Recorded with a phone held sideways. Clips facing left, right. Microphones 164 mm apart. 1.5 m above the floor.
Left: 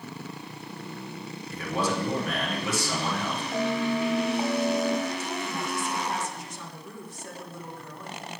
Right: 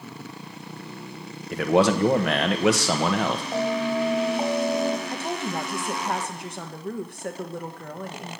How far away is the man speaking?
About 1.2 m.